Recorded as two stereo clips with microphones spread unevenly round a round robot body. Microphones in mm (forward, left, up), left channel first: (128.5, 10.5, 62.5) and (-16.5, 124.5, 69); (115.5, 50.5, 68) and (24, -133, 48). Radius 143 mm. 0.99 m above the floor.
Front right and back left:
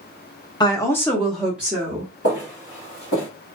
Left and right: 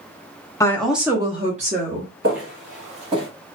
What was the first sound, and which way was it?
A woman speaking, 5° right.